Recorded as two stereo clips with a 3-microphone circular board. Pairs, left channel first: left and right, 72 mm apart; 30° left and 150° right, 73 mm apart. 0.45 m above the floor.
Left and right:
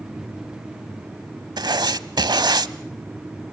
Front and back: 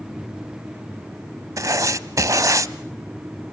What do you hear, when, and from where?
1.6 s writing: 110° right, 0.8 m